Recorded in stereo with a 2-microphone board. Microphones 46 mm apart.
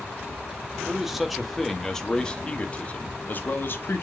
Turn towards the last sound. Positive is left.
turn(degrees=50)  # may be behind; listen again after turning